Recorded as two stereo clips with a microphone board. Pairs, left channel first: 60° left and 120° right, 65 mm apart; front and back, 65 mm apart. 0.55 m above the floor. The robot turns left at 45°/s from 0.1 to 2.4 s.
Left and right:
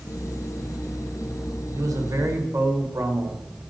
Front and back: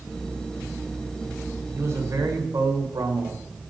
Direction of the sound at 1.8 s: 130° right.